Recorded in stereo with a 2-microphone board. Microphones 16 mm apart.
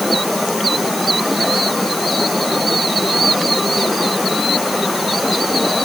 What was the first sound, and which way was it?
Only background noise.